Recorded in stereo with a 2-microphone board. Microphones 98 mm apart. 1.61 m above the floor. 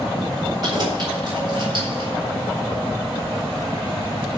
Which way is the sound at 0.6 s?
45° right (ahead or behind).